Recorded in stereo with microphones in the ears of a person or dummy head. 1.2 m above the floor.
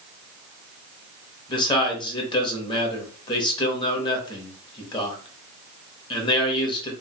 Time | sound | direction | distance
1.5 | a man speaking | 30° left (ahead or behind) | 1.1 m